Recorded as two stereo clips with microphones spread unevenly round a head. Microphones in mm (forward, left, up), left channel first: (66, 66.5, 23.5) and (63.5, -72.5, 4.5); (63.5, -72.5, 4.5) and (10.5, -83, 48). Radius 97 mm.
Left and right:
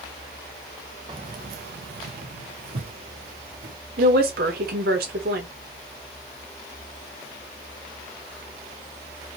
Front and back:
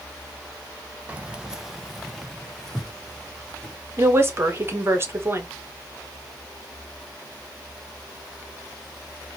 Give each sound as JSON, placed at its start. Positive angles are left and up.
{"t": 1.1, "sound": "keys jangling", "azimuth_deg": -160, "distance_m": 0.5}
{"t": 4.0, "sound": "a woman speaking", "azimuth_deg": -120, "distance_m": 1.4}